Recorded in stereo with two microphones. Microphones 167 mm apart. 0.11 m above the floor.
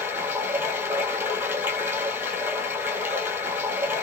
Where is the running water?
10° right (ahead or behind), 1.0 m.